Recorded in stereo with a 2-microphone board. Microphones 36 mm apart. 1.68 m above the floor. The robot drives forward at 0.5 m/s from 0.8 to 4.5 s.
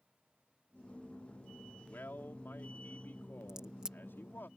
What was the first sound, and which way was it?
A man speaking, 65° left (ahead or behind).